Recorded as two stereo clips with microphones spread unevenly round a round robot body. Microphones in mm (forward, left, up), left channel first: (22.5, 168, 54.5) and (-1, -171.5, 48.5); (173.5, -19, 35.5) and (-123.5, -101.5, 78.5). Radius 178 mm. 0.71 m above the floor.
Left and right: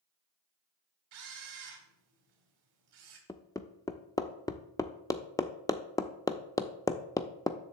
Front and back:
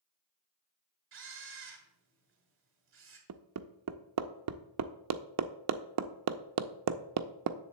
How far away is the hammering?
About 0.6 m.